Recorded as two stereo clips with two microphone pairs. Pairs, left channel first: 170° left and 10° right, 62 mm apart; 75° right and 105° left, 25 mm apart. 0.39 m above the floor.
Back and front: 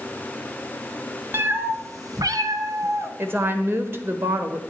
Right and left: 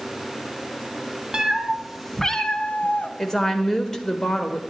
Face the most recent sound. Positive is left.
turn(degrees=-15)